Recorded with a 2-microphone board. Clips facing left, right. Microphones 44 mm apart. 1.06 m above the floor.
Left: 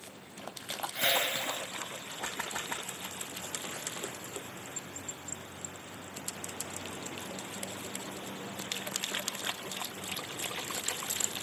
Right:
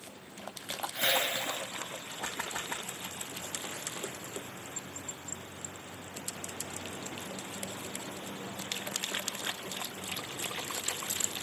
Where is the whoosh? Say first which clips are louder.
Even; centre (ahead or behind), 8.5 m.